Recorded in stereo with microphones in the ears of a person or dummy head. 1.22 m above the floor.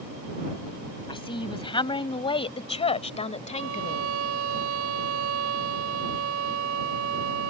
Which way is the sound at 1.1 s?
25° left (ahead or behind).